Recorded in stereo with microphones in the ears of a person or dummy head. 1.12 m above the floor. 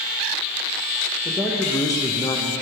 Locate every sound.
1.2 s a man speaking: 5° left (ahead or behind), 0.7 m; by 2.5 s 10° left (ahead or behind), 0.5 m